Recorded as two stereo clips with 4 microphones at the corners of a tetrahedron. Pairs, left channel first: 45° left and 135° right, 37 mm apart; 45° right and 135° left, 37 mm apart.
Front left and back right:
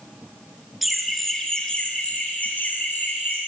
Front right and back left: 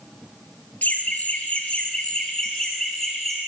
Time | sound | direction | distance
0.8 | laughter | 50° right | 1.5 m